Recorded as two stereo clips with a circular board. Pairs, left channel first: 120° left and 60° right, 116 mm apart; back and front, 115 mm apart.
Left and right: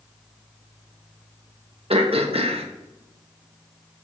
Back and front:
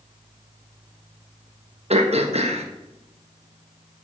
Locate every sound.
1.9 s throat clearing: 25° right, 1.2 m